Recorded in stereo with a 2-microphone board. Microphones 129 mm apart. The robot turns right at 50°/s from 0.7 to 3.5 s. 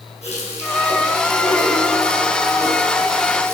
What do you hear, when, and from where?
0.2 s a running tap: 60° left, 3.5 m; by 3.5 s 160° right, 3.5 m